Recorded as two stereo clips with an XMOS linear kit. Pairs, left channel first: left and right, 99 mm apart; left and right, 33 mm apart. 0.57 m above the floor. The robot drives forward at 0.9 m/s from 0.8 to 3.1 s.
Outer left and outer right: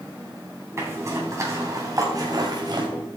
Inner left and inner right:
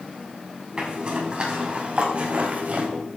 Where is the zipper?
30° right (ahead or behind), 4 m; by 2.9 s 50° right (ahead or behind), 3 m.